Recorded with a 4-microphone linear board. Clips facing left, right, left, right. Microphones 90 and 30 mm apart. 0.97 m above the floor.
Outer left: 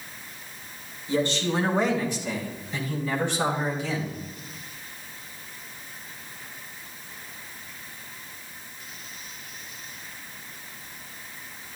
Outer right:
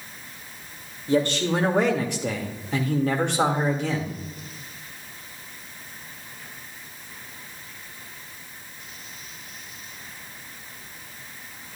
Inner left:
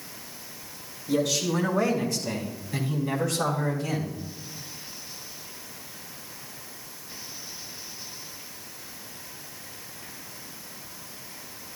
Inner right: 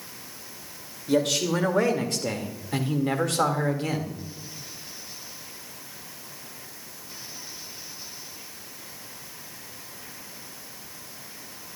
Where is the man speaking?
60° right (ahead or behind), 2 m; by 4.2 s 55° right (ahead or behind), 1.8 m.